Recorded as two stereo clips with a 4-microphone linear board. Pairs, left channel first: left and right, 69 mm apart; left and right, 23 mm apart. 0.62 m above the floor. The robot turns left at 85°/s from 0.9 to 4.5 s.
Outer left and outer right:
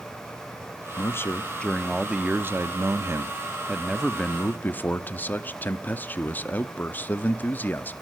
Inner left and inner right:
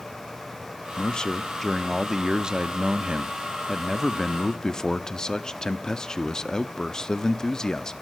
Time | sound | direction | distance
1.0 | a man speaking | 80° left | 0.8 m